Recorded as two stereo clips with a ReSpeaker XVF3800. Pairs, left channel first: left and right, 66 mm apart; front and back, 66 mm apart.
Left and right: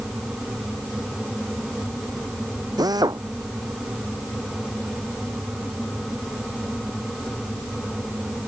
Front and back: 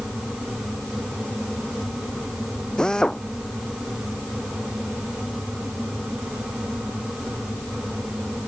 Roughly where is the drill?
Right.